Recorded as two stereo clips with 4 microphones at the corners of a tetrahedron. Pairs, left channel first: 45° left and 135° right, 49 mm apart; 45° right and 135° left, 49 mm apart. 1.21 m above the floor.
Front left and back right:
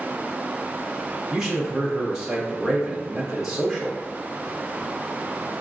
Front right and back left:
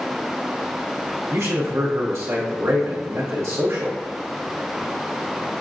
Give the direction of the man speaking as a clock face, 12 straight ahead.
7 o'clock.